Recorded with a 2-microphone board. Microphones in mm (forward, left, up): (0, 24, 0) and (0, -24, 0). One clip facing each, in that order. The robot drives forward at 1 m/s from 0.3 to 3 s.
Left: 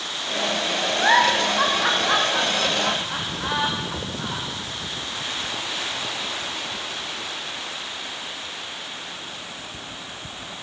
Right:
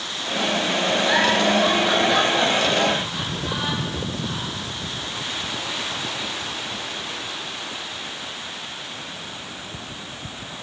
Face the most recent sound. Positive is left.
turn(degrees=70)  # may be behind; listen again after turning